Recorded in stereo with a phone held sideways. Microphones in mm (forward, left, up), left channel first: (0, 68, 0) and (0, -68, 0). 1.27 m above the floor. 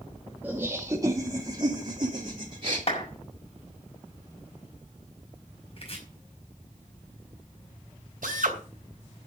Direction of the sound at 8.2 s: 75° right (ahead or behind).